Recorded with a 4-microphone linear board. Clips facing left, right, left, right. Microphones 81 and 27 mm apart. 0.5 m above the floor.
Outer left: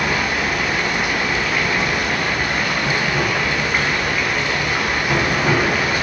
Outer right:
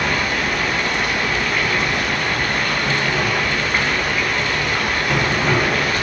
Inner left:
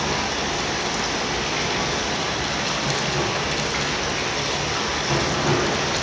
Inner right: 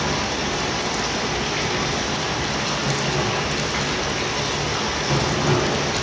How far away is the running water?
About 5 m.